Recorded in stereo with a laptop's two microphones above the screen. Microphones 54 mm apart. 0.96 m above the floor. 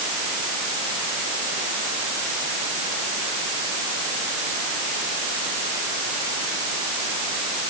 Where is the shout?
I don't hear a shout.